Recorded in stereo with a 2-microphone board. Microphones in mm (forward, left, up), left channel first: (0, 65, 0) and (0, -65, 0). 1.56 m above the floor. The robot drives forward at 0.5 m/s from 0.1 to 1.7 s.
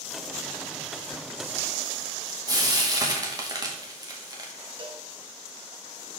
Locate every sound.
2.5 s frying: 30° right (ahead or behind), 2 m
4.8 s a cowbell: 40° right (ahead or behind), 1.5 m